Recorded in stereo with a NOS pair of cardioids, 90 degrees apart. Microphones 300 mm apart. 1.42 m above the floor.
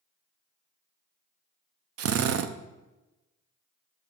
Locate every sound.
2.0 s a drill: 55° right, 0.5 m